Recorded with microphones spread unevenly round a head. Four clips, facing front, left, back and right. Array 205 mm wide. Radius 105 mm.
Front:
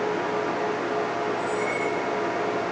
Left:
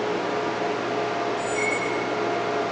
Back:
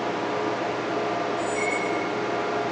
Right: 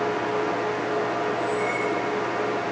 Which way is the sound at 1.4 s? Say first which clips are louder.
Right 1 dB, even; 125° left.